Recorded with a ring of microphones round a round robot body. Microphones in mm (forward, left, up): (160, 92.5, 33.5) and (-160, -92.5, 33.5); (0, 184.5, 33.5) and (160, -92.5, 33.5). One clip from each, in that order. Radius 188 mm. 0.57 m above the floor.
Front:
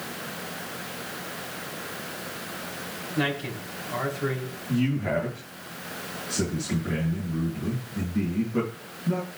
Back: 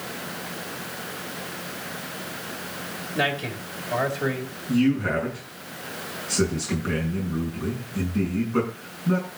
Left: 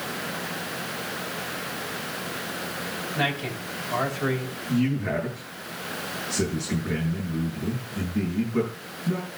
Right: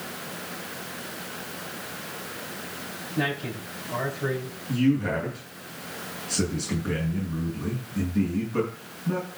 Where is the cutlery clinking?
No cutlery clinking in this recording.